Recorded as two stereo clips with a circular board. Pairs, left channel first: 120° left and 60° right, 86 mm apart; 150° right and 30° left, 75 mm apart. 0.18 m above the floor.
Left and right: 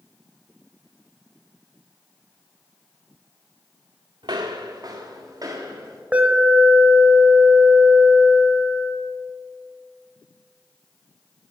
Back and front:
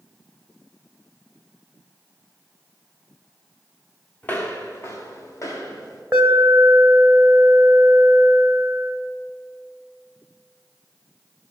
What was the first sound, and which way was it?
Footsteps, 80° right.